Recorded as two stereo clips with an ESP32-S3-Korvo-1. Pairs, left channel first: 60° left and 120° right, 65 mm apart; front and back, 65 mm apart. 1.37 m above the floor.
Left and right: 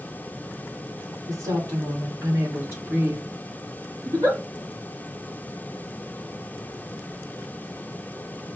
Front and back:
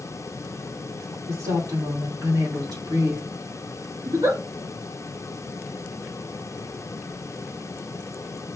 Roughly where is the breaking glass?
I don't hear breaking glass.